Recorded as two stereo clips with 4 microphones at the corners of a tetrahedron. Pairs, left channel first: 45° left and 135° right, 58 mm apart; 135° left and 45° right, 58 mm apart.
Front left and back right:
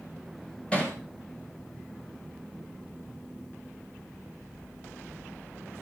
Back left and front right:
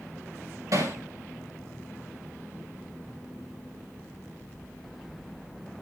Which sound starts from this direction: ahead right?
Hammering, at 0.7 s.